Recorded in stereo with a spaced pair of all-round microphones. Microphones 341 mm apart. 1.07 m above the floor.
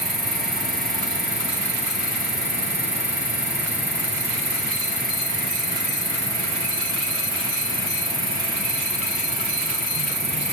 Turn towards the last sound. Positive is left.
turn(degrees=-10)  # may be behind; listen again after turning